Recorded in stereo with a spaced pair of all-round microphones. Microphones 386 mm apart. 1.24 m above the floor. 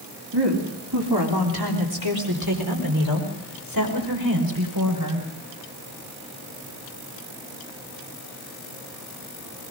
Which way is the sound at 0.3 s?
85° right.